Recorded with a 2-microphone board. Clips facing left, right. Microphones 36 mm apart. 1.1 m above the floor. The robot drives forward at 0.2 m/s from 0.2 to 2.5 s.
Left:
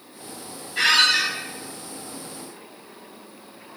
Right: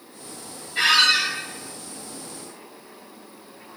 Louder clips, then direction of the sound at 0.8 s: Even; 25° right (ahead or behind).